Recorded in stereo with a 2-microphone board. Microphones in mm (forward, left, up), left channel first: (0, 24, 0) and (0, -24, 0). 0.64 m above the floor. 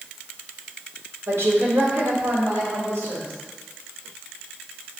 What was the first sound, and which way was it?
A woman speaking, 70° right (ahead or behind).